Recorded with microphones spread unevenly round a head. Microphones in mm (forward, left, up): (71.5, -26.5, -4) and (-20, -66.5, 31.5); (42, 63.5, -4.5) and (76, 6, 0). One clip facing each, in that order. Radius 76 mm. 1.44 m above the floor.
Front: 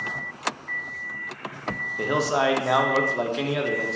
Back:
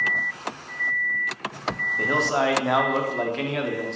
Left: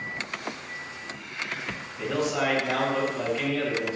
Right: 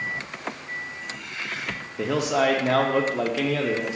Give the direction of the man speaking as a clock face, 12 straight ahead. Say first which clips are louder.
Front 1 dB, right 4 dB; 2 o'clock.